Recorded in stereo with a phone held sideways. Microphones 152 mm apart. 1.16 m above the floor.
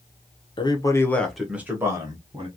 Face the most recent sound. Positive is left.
turn(degrees=-30)  # may be behind; listen again after turning